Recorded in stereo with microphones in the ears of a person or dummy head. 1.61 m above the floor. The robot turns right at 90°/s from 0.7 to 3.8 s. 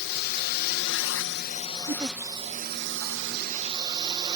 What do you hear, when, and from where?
0.0 s a drone: 55° left; by 4.4 s 25° right
1.9 s a giggle: 35° right (ahead or behind); by 2.2 s 10° right (ahead or behind)